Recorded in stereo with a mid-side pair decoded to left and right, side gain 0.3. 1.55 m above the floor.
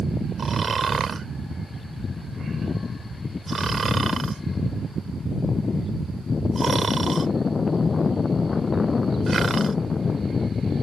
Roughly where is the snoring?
Ahead right.